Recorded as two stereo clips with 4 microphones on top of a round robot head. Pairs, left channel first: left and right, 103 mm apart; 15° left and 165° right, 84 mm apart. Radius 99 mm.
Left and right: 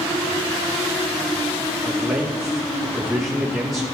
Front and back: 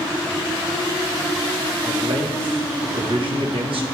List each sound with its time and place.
1.9 s a man speaking: straight behind, 1.8 m